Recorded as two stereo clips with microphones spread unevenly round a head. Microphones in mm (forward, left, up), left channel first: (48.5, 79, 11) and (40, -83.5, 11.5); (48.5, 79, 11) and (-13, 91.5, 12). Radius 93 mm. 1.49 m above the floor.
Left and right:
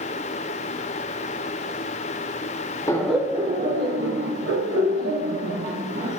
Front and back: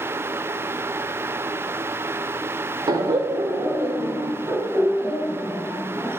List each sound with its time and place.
2.9 s laughter: 160° left, 0.6 m; by 6.1 s 100° right, 2 m